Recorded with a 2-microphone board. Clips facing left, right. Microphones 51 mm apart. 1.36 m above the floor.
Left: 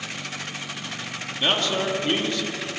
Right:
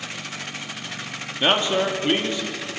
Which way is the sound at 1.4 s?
20° right (ahead or behind).